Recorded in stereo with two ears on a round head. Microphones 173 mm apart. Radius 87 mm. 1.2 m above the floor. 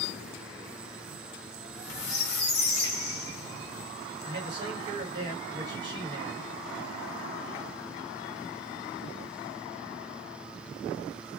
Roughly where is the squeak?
Left.